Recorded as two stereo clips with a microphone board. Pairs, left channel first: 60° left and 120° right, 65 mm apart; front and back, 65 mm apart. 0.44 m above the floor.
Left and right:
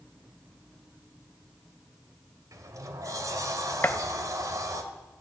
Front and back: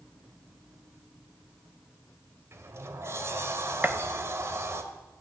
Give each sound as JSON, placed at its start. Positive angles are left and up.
{"t": 2.5, "sound": "a sliding door", "azimuth_deg": -140, "distance_m": 1.4}
{"t": 3.8, "sound": "a gunshot", "azimuth_deg": 120, "distance_m": 0.5}